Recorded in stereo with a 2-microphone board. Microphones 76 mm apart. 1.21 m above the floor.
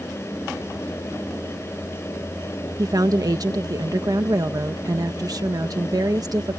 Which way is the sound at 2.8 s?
55° right (ahead or behind).